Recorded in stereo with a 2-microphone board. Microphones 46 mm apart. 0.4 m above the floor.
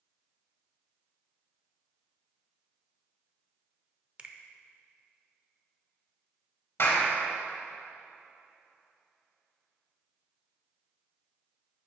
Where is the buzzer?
No buzzer in this recording.